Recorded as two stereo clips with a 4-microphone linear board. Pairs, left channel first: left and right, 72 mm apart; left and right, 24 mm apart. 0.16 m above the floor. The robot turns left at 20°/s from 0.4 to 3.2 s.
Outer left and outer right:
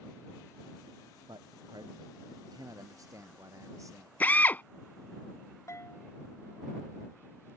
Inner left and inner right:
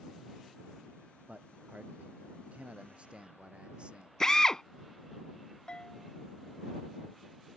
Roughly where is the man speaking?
Right.